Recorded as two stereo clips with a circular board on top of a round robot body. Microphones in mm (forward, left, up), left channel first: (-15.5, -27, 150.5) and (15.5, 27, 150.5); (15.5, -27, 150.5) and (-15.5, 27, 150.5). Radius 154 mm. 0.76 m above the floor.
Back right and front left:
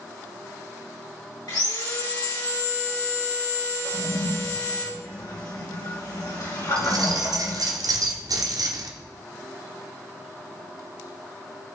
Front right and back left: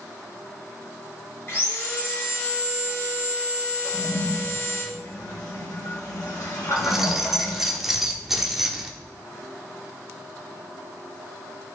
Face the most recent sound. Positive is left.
turn(degrees=35)